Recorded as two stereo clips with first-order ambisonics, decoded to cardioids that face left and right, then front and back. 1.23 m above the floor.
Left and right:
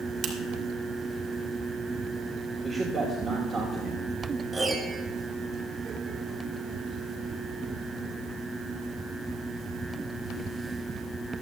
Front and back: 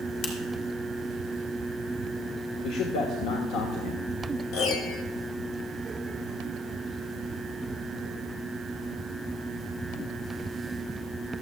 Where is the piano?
5° right, 0.9 m.